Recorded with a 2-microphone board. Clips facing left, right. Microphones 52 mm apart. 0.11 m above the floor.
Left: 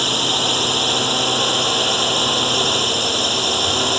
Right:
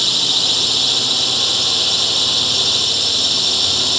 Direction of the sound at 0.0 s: 25° left (ahead or behind).